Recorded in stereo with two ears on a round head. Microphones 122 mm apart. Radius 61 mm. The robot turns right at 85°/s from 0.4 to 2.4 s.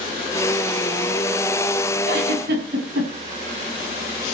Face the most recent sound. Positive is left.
turn(degrees=-85)